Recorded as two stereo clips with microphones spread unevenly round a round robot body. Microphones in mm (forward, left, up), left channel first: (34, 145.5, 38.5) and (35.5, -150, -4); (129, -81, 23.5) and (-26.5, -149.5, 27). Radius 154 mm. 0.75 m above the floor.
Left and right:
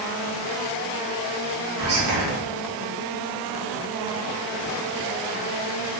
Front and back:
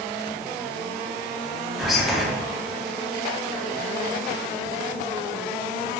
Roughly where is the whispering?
Ahead right.